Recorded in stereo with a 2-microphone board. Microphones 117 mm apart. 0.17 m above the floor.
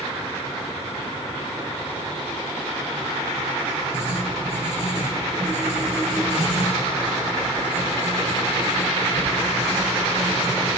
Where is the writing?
75° right (ahead or behind), 4 m.